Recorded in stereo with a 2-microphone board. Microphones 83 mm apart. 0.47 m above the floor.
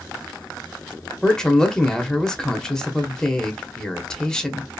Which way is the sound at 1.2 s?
10° left (ahead or behind).